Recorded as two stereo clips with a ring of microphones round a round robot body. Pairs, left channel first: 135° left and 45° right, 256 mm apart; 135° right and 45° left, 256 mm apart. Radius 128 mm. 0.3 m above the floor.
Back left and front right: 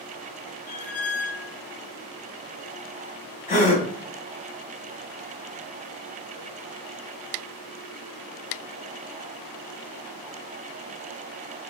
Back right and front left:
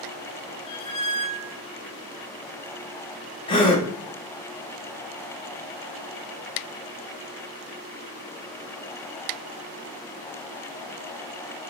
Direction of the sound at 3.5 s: 175° left.